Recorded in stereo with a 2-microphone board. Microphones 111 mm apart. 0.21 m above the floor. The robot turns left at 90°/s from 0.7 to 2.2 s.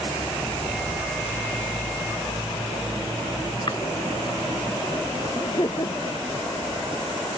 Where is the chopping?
45° left (ahead or behind).